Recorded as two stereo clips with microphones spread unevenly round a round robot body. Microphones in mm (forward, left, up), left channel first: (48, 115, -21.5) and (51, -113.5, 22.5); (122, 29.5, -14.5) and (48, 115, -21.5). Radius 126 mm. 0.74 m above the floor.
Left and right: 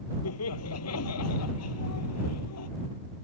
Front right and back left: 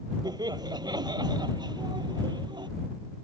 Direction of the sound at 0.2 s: 80° left.